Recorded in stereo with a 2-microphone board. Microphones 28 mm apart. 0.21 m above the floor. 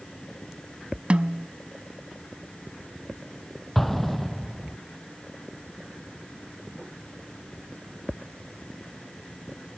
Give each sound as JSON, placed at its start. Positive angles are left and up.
{"t": 1.1, "sound": "a snare drum", "side_deg": -45}
{"t": 3.8, "sound": "an explosion", "side_deg": 5}